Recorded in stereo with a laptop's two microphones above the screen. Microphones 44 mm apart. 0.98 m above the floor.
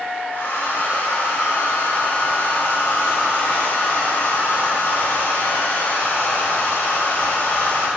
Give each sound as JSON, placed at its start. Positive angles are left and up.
{"t": 0.3, "sound": "a hair dryer", "side_deg": 65, "distance_m": 4.5}